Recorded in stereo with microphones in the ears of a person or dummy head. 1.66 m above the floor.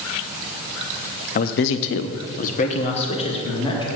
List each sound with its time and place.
1.4 s a man speaking: 45° left (ahead or behind), 0.8 m; by 3.9 s 25° left (ahead or behind), 2.5 m